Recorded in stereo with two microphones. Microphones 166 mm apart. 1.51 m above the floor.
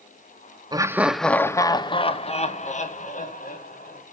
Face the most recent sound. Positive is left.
turn(degrees=55)  # may be behind; listen again after turning